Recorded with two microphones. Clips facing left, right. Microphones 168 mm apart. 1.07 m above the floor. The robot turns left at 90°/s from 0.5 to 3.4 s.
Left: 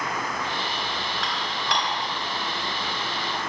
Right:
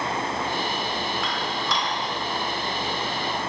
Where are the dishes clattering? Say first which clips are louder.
Right 2 dB; 75° left (ahead or behind), 1.6 m; by 1.9 s 45° left (ahead or behind), 1.6 m.